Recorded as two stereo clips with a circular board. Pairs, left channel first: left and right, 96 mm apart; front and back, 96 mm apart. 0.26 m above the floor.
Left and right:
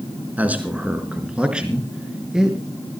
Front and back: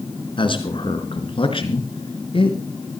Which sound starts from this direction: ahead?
A man speaking, at 0.4 s.